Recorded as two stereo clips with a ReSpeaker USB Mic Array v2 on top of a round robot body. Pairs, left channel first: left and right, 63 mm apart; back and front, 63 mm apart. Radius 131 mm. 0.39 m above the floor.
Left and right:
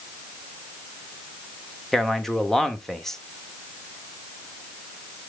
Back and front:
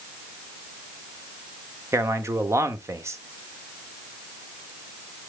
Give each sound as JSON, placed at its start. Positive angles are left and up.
{"t": 1.9, "sound": "a man speaking", "azimuth_deg": 5, "distance_m": 1.6}